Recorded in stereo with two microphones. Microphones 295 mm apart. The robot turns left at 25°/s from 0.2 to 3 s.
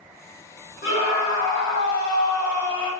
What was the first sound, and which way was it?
A scream, 55° left.